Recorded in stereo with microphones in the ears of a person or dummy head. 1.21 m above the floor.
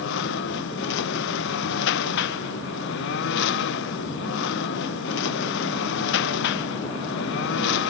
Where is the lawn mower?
70° left (ahead or behind).